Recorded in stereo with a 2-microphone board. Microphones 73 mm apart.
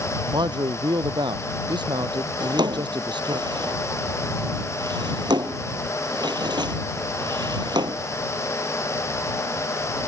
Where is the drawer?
80° right.